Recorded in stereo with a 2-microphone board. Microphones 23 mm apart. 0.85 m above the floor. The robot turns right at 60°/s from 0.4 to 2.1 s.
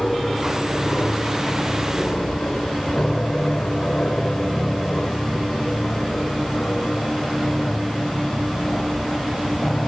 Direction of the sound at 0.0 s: 20° left (ahead or behind).